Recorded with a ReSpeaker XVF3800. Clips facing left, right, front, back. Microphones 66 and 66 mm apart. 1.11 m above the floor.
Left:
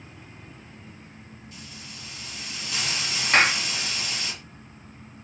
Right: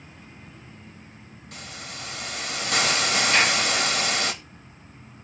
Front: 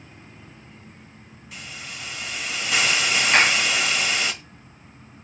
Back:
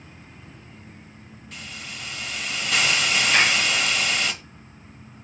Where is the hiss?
85° right, 1.8 m.